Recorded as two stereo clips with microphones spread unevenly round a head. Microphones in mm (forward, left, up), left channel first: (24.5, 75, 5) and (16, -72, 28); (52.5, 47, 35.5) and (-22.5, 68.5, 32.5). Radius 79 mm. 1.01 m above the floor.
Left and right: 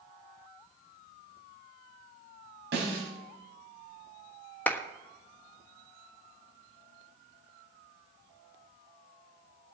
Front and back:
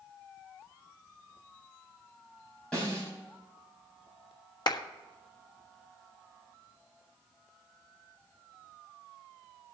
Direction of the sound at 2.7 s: 100° right.